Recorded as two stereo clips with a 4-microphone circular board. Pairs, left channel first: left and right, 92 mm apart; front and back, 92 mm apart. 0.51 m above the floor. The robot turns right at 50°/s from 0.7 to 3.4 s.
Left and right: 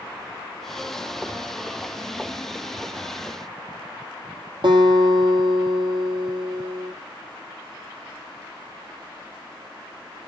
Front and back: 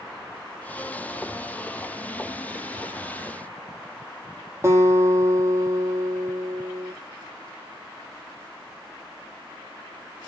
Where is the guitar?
120° right, 5.5 m.